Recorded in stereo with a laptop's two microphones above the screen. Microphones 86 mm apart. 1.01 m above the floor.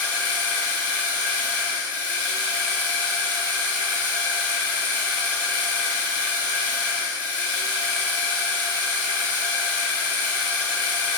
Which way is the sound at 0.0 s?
20° left (ahead or behind).